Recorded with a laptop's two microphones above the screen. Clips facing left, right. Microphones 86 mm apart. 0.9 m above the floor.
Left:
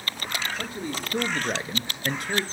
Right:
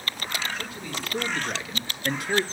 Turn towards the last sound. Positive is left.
turn(degrees=-15)  # may be behind; listen again after turning